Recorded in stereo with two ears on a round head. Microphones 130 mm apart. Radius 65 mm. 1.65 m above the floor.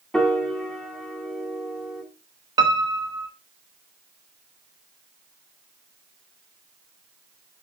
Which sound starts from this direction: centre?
A piano, at 0.1 s.